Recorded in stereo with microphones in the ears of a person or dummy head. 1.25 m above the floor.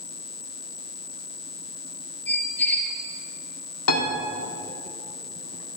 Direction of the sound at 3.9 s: 70° left (ahead or behind).